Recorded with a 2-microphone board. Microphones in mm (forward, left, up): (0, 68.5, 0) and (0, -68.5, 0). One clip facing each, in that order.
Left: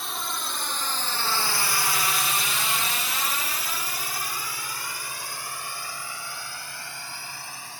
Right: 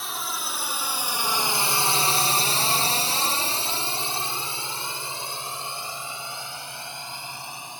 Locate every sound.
0.0 s a drone: centre (ahead or behind); by 7.8 s 20° right (ahead or behind)